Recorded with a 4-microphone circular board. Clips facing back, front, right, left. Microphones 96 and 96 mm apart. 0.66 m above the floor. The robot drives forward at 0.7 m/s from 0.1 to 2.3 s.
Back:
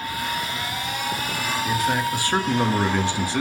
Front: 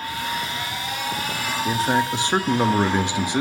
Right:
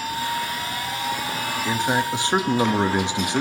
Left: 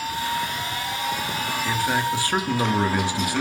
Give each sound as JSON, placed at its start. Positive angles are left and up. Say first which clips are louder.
{"t": 1.6, "sound": "a man speaking", "louder": "front 3 dB, right 1 dB", "azimuth_deg": -30, "distance_m": 1.4}